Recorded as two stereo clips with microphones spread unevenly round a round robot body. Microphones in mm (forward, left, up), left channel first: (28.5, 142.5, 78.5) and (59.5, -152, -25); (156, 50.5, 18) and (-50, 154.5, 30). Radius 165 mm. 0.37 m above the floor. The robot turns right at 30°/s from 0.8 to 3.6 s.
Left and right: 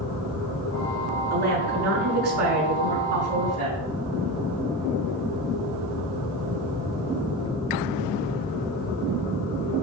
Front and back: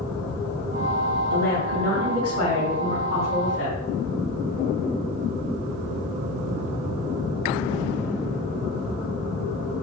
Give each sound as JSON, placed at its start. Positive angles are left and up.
{"t": 1.3, "sound": "a woman speaking", "azimuth_deg": -155, "distance_m": 3.0}